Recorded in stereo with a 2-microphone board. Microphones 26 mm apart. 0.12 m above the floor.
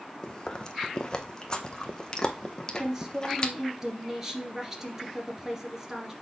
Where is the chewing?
25° left (ahead or behind), 1.0 m.